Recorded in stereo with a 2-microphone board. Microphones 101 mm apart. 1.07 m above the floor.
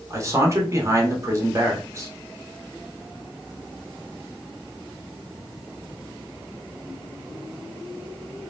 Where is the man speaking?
30° right (ahead or behind), 0.8 m.